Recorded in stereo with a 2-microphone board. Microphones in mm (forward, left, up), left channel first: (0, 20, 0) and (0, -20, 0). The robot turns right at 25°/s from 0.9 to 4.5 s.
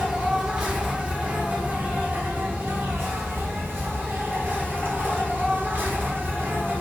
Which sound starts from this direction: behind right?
An insect, at 0.0 s.